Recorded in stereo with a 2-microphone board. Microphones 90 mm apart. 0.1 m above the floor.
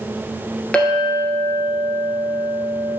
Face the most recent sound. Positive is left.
turn(degrees=10)  # may be behind; listen again after turning